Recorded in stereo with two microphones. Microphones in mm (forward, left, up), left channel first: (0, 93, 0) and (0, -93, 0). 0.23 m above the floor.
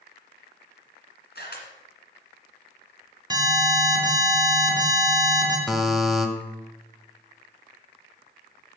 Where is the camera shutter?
65° left (ahead or behind), 2 m.